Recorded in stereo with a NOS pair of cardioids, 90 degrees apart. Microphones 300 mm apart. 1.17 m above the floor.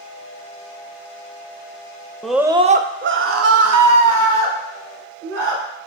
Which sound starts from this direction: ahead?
A scream, at 2.2 s.